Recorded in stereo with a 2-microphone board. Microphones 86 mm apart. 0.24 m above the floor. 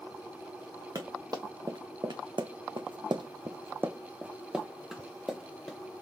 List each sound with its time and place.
0.9 s running footsteps: 45° right (ahead or behind), 1.2 m; by 5.8 s 5° left (ahead or behind), 1.4 m